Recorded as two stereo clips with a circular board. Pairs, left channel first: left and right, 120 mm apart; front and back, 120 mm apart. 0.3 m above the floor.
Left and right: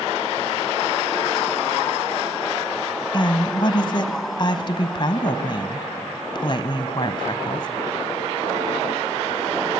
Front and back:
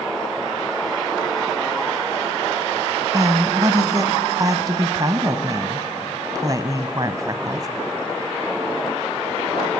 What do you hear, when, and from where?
3.1 s a woman speaking: 130° left, 1.6 m